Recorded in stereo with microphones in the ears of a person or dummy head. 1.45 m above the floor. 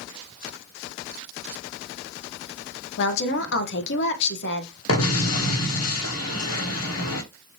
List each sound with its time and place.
3.0 s a woman speaking: 55° left (ahead or behind), 0.7 m
4.9 s an explosion: 80° left, 1.1 m